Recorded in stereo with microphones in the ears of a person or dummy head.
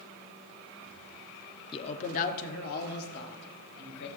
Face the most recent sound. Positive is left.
turn(degrees=60)  # may be behind; listen again after turning